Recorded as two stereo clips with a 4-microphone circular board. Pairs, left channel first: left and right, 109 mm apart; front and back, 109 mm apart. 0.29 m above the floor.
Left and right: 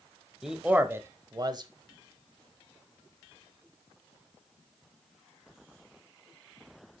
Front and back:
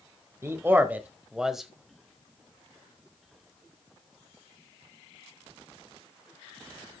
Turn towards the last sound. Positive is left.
turn(degrees=-90)